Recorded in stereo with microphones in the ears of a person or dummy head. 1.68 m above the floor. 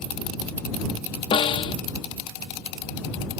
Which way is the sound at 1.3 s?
25° left (ahead or behind).